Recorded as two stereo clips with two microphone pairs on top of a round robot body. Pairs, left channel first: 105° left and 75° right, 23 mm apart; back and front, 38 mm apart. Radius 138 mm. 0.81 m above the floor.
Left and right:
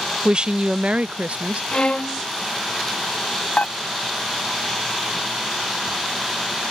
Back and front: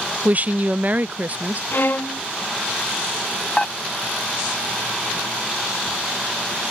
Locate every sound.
0.2 s a woman speaking: 35° right; by 1.6 s 55° right
1.7 s a violin: 145° left
3.6 s dishes clattering: 105° left